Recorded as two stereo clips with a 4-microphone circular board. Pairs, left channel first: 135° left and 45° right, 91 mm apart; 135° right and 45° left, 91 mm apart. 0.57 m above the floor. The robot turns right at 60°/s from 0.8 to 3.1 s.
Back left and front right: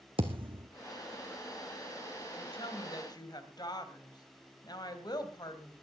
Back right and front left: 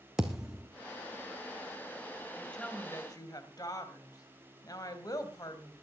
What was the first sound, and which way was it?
A thud, 40° right.